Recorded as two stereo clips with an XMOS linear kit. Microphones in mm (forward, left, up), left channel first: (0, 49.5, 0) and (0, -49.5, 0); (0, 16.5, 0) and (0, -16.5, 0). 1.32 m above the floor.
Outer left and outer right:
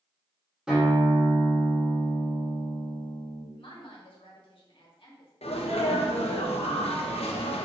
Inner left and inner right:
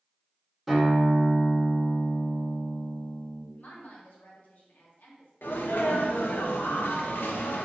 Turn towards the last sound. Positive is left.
turn(degrees=85)